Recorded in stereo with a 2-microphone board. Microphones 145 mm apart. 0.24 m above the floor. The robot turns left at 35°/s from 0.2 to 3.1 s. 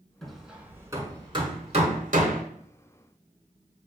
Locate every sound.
0.2 s hammering: 5° left (ahead or behind), 0.7 m; by 2.4 s 70° right (ahead or behind), 0.7 m